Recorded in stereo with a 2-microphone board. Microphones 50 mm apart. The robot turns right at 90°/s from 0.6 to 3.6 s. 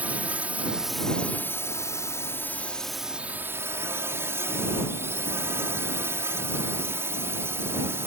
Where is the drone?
30° right; by 8.1 s 120° right.